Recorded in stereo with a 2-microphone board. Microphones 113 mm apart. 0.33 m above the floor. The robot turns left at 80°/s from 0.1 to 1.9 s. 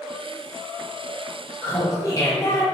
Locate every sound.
1.6 s laughter: 15° left (ahead or behind), 1.7 m; by 2.6 s 30° left (ahead or behind), 1.7 m